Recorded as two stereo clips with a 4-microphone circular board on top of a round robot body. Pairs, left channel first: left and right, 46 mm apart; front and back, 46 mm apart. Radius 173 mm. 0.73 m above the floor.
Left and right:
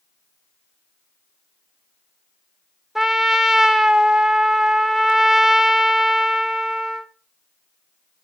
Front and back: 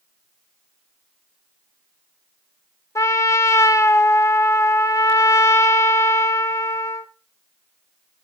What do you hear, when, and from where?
3.0 s a trumpet: 10° right, 0.6 m